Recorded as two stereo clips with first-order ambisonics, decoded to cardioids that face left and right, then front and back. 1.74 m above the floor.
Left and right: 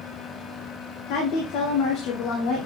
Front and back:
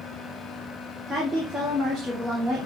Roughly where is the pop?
No pop in this recording.